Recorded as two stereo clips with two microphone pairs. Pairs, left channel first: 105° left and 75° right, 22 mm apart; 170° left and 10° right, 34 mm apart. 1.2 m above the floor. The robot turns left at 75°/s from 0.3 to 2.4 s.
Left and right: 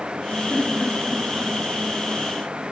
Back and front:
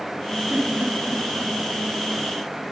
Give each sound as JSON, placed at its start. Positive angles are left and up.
{"t": 0.5, "sound": "a giggle", "azimuth_deg": 55, "distance_m": 1.9}